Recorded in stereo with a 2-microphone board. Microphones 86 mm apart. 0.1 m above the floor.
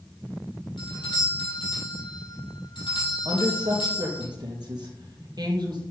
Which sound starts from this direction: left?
A doorbell, at 0.8 s.